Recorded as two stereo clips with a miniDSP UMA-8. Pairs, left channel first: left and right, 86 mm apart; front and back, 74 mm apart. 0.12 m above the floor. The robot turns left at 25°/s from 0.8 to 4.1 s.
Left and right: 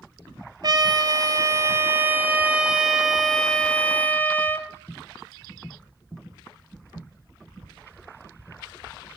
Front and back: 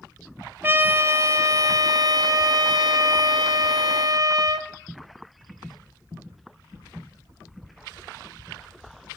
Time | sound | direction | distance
0.6 | a trumpet | 120° right | 0.8 m